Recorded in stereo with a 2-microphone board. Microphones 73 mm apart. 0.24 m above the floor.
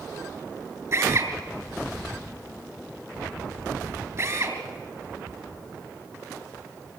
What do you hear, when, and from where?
0.9 s a drill: 45° right (ahead or behind), 3.5 m